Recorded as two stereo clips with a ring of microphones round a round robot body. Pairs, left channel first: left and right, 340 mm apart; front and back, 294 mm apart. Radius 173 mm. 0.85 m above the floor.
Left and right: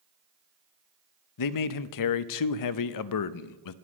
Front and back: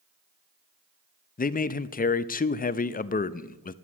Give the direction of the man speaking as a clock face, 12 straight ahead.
10 o'clock.